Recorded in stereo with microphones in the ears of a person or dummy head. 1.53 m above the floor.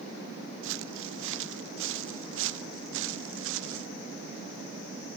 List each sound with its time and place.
0.6 s footsteps: 70° right (ahead or behind); by 3.9 s 75° right (ahead or behind)